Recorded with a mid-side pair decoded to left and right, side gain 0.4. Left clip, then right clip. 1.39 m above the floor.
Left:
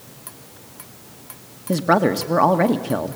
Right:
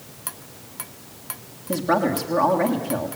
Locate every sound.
1.7 s a woman speaking: 55° left, 1.8 m